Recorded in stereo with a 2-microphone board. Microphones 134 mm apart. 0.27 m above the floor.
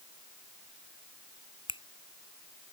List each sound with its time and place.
1.7 s a finger snap: 40° left (ahead or behind)